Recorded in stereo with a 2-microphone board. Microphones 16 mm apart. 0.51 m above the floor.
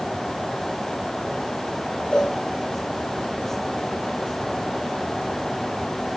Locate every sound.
2.1 s a cowbell: 90° left, 10 m